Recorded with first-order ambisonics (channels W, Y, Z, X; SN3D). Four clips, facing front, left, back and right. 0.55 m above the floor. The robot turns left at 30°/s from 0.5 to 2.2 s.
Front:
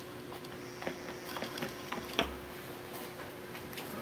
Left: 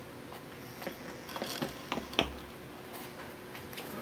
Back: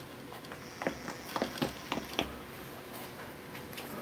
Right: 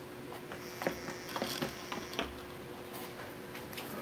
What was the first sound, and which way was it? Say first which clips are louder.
Running footsteps: right 7 dB, back 5 dB; 135° right.